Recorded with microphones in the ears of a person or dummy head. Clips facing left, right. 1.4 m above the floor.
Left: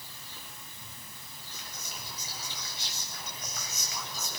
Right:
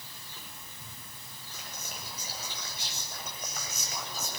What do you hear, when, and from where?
1.5 s whispering: 45° right (ahead or behind), 9 m